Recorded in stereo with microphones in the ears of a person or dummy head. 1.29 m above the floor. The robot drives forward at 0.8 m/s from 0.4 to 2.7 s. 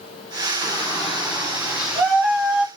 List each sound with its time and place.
0.6 s a shout: centre (ahead or behind), 3 m; by 2.7 s 5° right (ahead or behind), 1.3 m